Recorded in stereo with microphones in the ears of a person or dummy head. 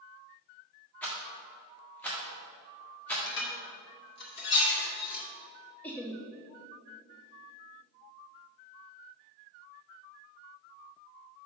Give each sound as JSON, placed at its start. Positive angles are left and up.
{"t": 1.0, "sound": "a rattle", "side_deg": 10, "distance_m": 1.4}
{"t": 3.3, "sound": "dishes clattering", "side_deg": 60, "distance_m": 1.9}
{"t": 5.8, "sound": "laughter", "side_deg": 10, "distance_m": 0.7}